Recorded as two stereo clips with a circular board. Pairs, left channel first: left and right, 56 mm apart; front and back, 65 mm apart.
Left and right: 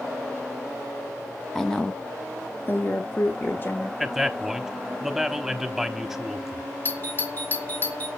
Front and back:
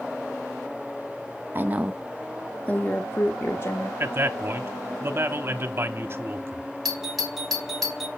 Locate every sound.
1.6 s a woman speaking: 170° left, 0.7 m; by 3.9 s 40° left, 1.6 m
4.0 s a man speaking: 175° right, 0.8 m
6.8 s a doorbell: 90° left, 1.2 m